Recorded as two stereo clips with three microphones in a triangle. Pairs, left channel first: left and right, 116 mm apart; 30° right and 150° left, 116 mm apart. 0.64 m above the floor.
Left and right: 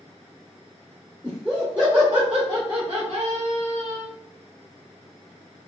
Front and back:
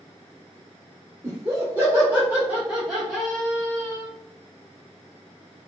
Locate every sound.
1.2 s laughter: 175° right, 1.3 m; by 4.1 s 95° right, 1.3 m